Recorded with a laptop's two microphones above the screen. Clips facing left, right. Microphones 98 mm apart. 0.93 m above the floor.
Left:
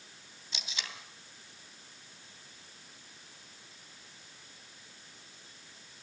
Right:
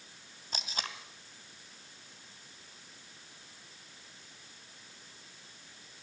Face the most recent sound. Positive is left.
turn(degrees=-45)  # may be behind; listen again after turning